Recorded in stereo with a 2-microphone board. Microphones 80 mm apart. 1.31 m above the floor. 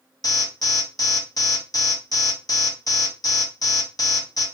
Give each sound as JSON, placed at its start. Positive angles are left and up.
{"t": 0.2, "sound": "an alarm", "side_deg": 50, "distance_m": 1.1}